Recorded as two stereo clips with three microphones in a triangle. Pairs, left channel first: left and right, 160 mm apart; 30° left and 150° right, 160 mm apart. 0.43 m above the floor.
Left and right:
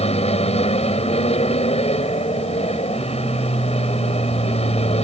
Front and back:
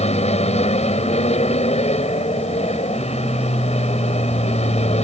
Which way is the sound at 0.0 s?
60° left.